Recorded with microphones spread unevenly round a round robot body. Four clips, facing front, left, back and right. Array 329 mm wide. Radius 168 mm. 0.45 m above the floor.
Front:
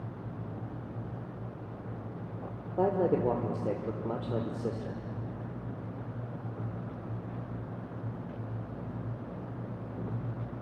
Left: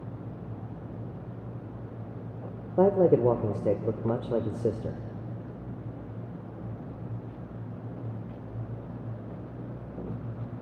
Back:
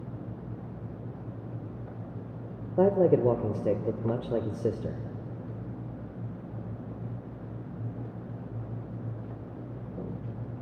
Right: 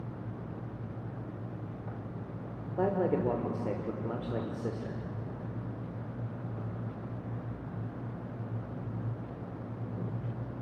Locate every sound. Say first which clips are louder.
2.8 s a man speaking: left 8 dB, back 5 dB; 125° left, 1.2 m